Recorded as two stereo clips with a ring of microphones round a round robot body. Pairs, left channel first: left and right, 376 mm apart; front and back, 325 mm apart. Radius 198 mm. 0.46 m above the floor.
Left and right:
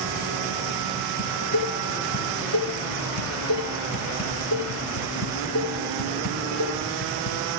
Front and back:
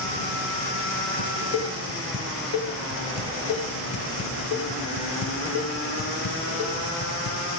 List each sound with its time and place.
1.2 s dishes clattering: 45° left, 6.5 m